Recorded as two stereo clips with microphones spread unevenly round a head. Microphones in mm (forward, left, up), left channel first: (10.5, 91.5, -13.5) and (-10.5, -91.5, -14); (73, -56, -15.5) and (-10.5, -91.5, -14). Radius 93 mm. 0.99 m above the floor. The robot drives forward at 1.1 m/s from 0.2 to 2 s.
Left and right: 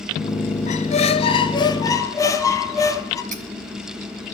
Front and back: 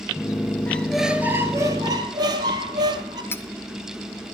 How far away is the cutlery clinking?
About 1.8 m.